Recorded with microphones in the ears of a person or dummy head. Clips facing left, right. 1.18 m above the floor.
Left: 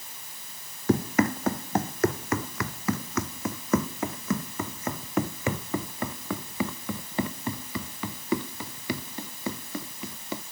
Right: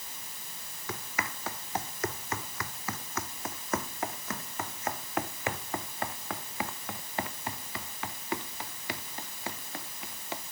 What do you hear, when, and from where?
0.9 s running footsteps: 35° left (ahead or behind); by 10.4 s 80° left